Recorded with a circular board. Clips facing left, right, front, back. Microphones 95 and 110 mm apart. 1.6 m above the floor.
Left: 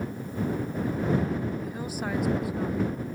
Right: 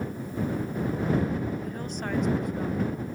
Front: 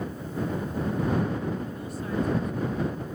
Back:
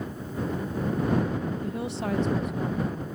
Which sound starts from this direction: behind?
A woman speaking, at 1.6 s.